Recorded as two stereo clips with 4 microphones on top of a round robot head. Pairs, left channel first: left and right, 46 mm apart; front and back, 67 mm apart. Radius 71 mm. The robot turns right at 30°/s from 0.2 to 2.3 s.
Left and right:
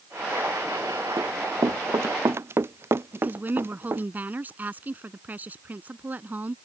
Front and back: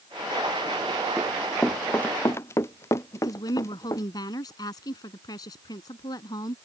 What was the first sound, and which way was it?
Running footsteps, 95° right.